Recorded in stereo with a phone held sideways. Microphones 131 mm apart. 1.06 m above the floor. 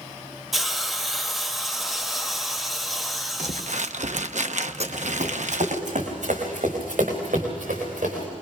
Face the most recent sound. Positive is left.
turn(degrees=-80)